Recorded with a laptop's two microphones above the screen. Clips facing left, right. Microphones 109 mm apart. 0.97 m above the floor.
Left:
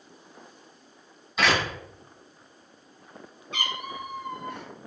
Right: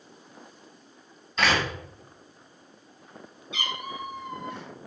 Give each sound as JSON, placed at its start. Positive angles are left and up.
{"t": 1.4, "sound": "a door slam", "side_deg": 10, "distance_m": 5.5}
{"t": 3.5, "sound": "a cat meowing", "side_deg": 55, "distance_m": 2.0}